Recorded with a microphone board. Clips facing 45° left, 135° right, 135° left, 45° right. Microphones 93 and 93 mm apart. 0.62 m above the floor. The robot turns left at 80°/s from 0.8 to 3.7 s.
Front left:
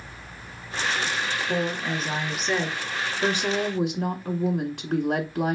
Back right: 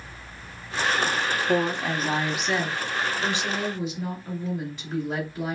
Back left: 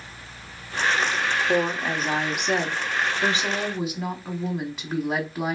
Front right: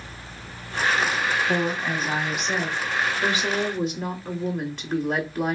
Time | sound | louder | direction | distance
1.5 | a woman speaking | back right 4 dB, back left 1 dB | 135° right | 0.8 m